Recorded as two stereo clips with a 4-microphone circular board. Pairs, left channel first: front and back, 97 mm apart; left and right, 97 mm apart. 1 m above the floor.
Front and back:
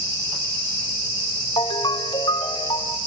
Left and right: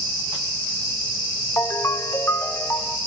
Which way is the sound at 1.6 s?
30° left.